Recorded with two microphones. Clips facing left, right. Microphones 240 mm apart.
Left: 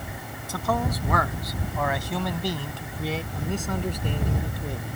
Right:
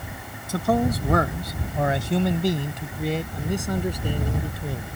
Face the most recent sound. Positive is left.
turn(degrees=-5)  # may be behind; listen again after turning